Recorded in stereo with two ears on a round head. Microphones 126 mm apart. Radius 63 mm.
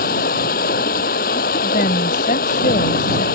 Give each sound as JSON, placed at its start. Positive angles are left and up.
{"t": 0.0, "sound": "running water", "side_deg": 70}
{"t": 1.6, "sound": "a woman speaking", "side_deg": 65}